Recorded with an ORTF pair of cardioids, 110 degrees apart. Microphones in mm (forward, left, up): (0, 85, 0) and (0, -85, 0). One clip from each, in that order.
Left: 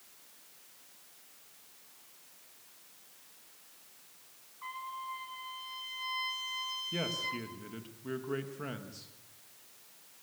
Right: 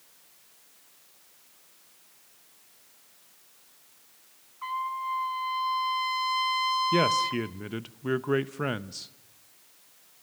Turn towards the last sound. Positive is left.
turn(degrees=-60)